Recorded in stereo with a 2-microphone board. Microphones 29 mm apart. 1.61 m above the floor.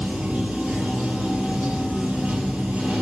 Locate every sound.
0.0 s running water: 60° right (ahead or behind), 6 m